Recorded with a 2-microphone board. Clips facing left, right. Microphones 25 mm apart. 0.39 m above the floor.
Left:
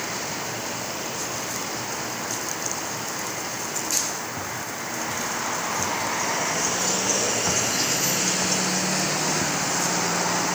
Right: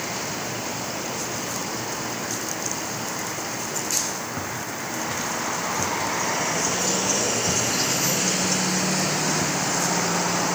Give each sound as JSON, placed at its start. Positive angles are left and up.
{"t": 4.4, "sound": "footsteps", "side_deg": -15, "distance_m": 5.5}